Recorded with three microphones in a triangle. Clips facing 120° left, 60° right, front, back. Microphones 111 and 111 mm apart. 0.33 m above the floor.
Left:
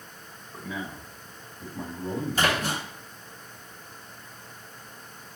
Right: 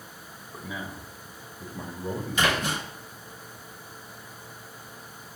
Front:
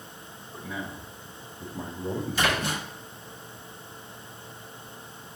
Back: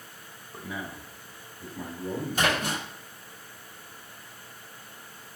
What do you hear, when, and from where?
0.5 s a man speaking: 120° right, 0.9 m; by 2.8 s 15° left, 1.4 m
2.4 s a splash: 165° left, 2.5 m